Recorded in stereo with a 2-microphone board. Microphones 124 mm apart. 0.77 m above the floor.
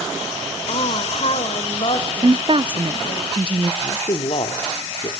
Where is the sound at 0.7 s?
55° left (ahead or behind), 3.5 m; by 3.2 s 45° left (ahead or behind), 4.5 m.